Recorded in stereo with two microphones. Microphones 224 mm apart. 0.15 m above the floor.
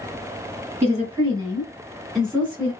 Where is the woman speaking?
30° right (ahead or behind), 1.8 m; by 2.7 s 15° left (ahead or behind), 1.7 m.